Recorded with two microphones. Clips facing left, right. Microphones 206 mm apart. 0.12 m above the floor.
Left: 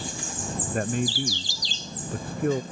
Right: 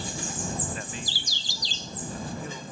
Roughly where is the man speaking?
Left.